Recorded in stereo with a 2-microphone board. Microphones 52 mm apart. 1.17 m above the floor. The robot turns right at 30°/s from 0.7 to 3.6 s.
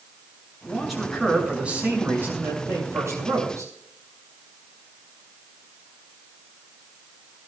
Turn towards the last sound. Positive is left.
turn(degrees=-95)